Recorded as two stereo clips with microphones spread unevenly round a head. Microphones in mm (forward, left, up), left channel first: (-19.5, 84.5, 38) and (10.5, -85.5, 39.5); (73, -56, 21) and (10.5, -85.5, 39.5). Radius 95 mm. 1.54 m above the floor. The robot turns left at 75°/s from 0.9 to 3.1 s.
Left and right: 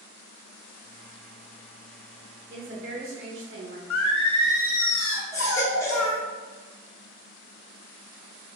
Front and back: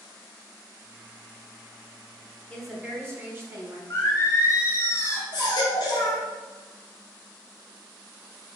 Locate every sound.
2.5 s a woman speaking: 50° right, 1.4 m; by 3.8 s 95° right, 1.4 m
3.9 s singing: 100° left, 0.9 m
5.3 s a baby crying: 30° left, 0.6 m